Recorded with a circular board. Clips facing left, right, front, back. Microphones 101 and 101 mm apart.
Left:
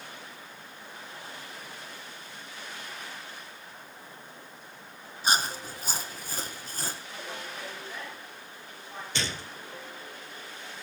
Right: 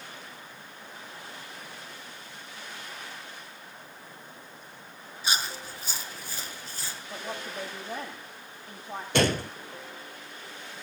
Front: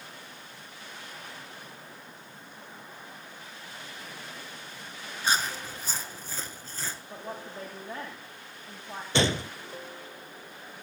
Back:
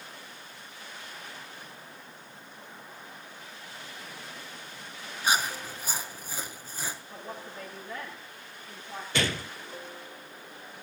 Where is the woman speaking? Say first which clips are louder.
Right 3 dB, front 2 dB; 55° right, 9.5 m.